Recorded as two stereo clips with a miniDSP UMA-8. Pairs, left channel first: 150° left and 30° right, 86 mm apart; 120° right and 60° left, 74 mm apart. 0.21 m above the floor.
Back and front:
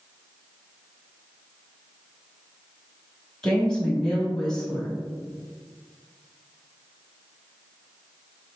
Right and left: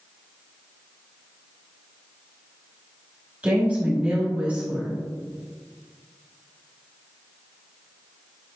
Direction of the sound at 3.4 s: 85° left.